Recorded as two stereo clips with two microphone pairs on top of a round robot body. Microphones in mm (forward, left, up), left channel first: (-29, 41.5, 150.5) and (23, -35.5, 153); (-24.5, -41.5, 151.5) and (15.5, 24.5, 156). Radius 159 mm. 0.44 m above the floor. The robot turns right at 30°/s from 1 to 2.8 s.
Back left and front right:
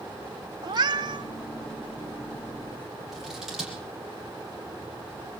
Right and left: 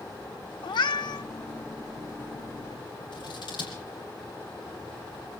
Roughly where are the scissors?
Behind right.